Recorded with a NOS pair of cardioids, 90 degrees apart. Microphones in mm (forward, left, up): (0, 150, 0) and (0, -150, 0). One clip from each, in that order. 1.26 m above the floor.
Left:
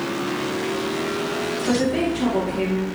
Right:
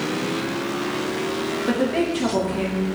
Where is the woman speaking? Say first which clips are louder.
Even; 15° right, 1.0 m.